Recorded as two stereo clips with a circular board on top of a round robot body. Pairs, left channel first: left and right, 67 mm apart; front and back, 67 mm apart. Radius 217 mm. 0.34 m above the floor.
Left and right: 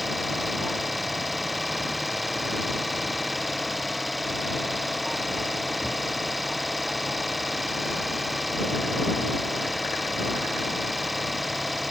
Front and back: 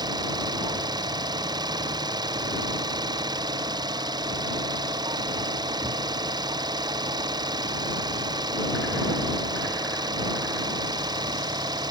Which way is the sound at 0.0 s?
Straight behind.